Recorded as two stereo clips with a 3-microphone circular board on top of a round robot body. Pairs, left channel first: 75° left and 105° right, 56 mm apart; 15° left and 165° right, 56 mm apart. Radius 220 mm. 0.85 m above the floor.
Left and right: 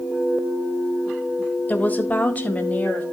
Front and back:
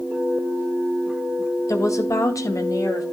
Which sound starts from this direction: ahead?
A woman speaking, at 1.7 s.